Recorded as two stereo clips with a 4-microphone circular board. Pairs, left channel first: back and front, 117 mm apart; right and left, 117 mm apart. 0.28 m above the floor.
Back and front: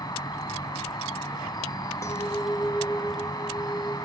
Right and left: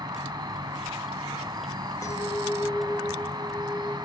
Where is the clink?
135° right, 0.7 m.